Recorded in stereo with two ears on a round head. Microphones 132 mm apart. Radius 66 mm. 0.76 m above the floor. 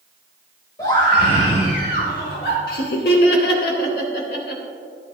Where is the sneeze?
I don't hear a sneeze.